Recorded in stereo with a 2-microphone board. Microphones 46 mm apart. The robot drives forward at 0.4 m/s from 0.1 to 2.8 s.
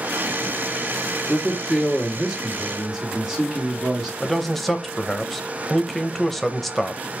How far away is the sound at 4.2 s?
About 0.6 m.